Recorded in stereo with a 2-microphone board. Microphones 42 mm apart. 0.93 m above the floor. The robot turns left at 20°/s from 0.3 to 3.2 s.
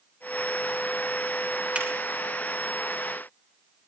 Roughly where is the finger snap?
Right.